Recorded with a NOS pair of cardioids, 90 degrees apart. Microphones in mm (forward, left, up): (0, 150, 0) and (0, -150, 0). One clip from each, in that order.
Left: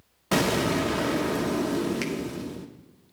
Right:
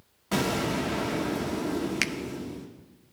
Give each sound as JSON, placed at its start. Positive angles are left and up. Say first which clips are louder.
{"t": 0.3, "sound": "an explosion", "louder": "left 4 dB", "azimuth_deg": 40, "distance_m": 1.2}
{"t": 2.0, "sound": "a finger snap", "louder": "right 3 dB", "azimuth_deg": -35, "distance_m": 0.5}